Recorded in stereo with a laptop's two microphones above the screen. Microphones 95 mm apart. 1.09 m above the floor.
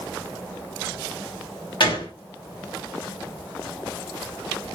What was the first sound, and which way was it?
A gunshot, 60° left (ahead or behind).